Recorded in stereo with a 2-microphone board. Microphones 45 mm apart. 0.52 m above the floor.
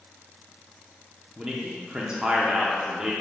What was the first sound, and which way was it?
A man speaking, 15° right (ahead or behind).